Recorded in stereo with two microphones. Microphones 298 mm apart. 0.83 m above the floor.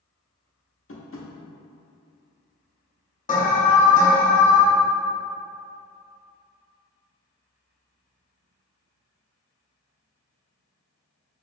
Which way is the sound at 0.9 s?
45° left (ahead or behind).